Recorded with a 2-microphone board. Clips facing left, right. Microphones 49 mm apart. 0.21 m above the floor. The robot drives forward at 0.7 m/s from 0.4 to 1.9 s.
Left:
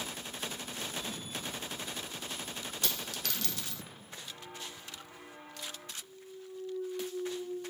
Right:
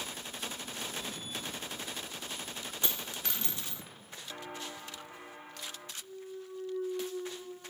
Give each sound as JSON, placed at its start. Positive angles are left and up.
{"t": 2.8, "sound": "a dropped coin", "side_deg": -25, "distance_m": 1.2}
{"t": 4.3, "sound": "footsteps", "side_deg": -50, "distance_m": 1.2}
{"t": 6.0, "sound": "a clunk", "side_deg": -40, "distance_m": 2.0}